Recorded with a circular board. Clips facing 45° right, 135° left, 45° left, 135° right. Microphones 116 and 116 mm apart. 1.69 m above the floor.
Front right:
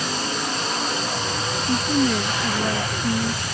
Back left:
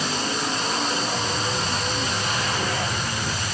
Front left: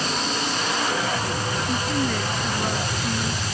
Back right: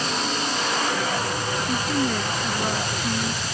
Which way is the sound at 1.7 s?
50° right.